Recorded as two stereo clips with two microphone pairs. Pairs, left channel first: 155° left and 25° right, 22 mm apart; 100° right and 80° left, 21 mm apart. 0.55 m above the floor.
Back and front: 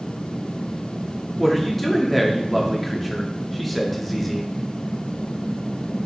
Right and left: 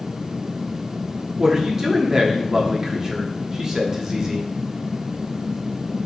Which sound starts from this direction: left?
A man speaking, at 1.4 s.